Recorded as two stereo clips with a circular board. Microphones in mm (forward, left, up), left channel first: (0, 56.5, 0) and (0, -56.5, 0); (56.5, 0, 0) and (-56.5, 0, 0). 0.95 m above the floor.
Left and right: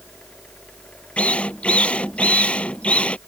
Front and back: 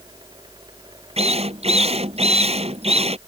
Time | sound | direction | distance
1.2 | a drill | 170° left | ?